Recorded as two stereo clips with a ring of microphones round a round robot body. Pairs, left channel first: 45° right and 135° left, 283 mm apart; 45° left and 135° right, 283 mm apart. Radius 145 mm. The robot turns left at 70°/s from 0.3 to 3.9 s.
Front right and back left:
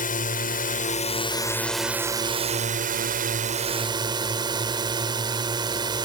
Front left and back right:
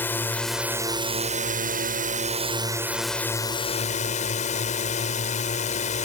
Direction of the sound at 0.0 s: 30° right.